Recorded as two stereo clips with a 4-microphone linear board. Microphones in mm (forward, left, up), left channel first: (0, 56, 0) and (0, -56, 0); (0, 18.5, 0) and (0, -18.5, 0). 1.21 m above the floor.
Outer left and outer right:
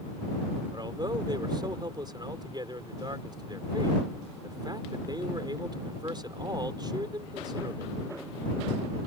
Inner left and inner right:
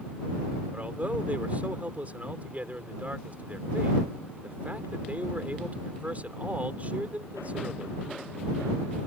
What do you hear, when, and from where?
0.7 s a man speaking: 40° right (ahead or behind)